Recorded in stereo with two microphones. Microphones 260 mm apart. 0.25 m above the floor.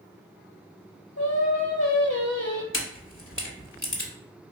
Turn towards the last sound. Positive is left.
turn(degrees=55)  # may be behind; listen again after turning